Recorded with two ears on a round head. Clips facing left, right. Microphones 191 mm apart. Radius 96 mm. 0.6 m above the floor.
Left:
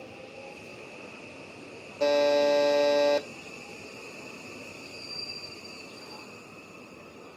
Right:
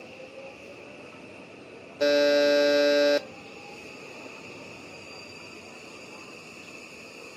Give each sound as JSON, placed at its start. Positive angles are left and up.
{"t": 2.0, "sound": "a buzzer", "side_deg": -15, "distance_m": 0.5}